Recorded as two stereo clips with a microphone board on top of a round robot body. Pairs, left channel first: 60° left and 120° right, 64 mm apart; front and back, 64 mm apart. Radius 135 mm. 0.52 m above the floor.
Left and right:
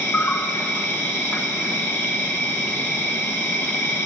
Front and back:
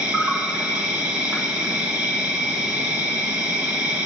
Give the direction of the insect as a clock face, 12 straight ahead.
8 o'clock.